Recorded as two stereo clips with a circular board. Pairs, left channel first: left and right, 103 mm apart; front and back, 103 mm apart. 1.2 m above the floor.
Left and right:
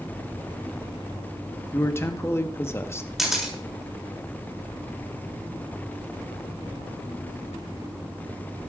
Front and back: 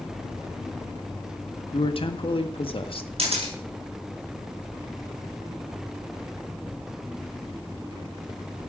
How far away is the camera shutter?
About 5.5 m.